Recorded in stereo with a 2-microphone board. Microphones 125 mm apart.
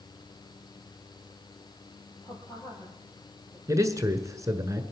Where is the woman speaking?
30° left (ahead or behind), 5 m.